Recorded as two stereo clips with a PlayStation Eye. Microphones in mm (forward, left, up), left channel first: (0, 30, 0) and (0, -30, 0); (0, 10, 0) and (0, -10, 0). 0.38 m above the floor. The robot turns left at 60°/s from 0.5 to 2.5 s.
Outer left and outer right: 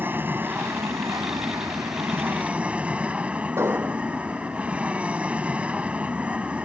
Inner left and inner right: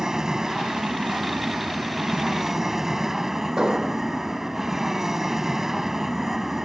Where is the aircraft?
35° right; by 6.7 s 155° right.